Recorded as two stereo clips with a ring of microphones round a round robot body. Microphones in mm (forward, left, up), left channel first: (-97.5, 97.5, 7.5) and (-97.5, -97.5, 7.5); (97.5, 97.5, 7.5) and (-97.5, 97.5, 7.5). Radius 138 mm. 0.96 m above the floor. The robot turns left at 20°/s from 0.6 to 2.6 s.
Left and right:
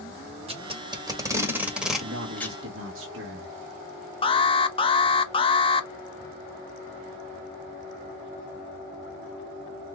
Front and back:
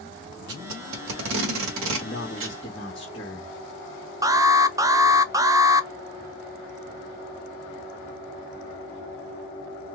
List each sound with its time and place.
0.5 s tape being pulled: 150° right, 1.6 m; by 2.6 s 170° left, 1.6 m
2.0 s a man speaking: 60° right, 1.5 m; by 3.5 s 70° right, 1.5 m
4.2 s an alarm: 125° left, 0.7 m